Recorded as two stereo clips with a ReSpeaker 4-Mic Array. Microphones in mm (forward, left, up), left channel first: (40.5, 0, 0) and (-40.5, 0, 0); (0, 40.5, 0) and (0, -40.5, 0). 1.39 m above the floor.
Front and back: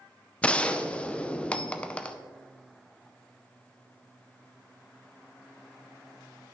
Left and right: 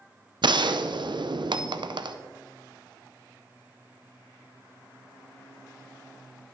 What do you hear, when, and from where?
0.4 s a gunshot: 75° right, 0.5 m